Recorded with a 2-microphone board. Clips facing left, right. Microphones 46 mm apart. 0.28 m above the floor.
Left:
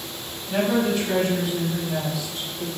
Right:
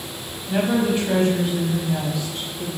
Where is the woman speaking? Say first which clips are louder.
Right 1 dB; 20° right (ahead or behind), 1.2 m; by 2.7 s 50° right (ahead or behind), 2 m.